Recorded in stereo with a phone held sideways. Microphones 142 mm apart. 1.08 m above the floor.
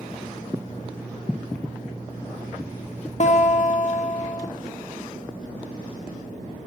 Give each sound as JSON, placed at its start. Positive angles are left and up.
{"t": 3.2, "sound": "a guitar", "side_deg": 55, "distance_m": 0.6}